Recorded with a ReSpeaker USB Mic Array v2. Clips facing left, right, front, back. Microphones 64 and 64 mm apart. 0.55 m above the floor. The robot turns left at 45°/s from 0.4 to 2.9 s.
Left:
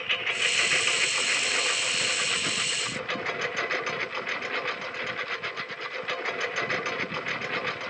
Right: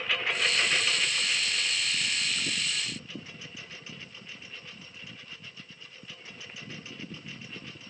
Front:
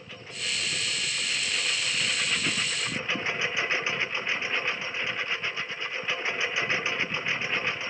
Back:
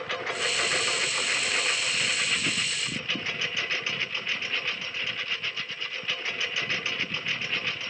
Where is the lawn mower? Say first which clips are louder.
Even, back 9 dB; straight behind; by 7.9 s 65° left.